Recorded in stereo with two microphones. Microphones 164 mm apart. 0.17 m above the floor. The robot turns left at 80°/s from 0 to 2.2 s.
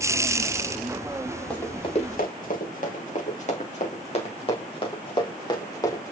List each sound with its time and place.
1.5 s running footsteps: 5° left (ahead or behind), 4.5 m; by 6.1 s 20° left (ahead or behind), 4.5 m